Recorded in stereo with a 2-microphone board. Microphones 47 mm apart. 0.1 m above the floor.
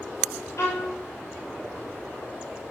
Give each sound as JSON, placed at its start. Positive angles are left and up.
{"t": 0.6, "sound": "a violin", "side_deg": 80, "distance_m": 6.5}